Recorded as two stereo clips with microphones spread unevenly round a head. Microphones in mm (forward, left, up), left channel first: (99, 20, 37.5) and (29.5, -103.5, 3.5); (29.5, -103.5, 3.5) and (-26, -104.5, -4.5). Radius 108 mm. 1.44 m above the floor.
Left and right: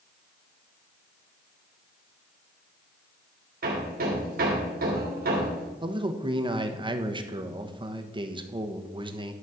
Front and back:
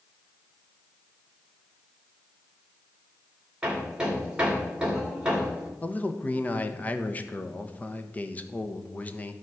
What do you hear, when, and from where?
3.6 s hammering: 105° right, 3 m
5.8 s a man speaking: 60° right, 1.3 m